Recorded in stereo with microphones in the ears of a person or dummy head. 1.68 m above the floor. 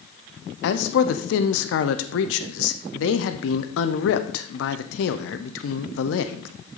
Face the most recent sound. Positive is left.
turn(degrees=80)